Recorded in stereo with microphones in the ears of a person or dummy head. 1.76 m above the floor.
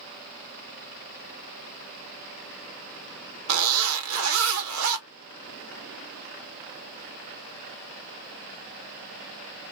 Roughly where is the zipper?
Right.